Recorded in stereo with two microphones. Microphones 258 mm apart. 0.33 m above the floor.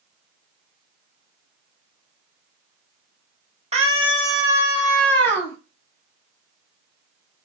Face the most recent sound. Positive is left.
turn(degrees=15)  # may be behind; listen again after turning